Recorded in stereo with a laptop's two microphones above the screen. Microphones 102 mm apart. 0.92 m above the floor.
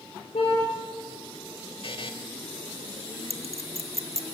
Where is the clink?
85° right, 1.0 m.